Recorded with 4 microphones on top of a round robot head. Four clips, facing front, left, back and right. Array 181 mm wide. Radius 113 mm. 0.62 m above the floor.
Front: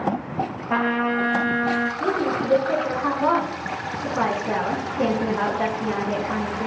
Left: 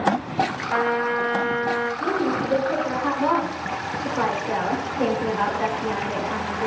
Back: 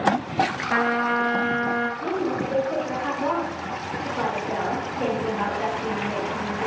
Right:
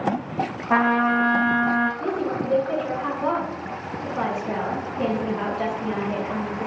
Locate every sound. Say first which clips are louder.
0.7 s a trumpet: right 5 dB, front 3 dB; 75° right, 2 m
2.0 s a woman speaking: left 2 dB, front 2 dB; 15° right, 6.5 m